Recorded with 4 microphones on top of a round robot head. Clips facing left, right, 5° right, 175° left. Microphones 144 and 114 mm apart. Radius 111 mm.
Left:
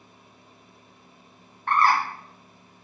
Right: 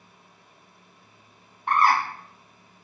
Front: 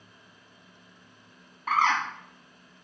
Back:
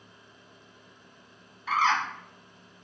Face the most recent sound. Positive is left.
turn(degrees=-20)